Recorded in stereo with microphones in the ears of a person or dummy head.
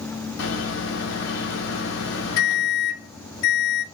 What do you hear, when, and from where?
0.4 s a microwave: 80° left, 1.1 m